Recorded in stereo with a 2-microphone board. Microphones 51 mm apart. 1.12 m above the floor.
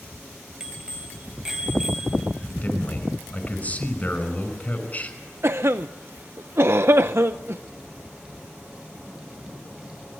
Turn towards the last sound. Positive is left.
turn(degrees=-55)  # may be behind; listen again after turning